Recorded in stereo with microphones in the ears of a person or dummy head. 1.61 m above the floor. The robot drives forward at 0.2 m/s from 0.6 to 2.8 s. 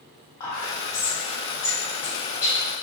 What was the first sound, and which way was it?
Whispering, 25° left (ahead or behind).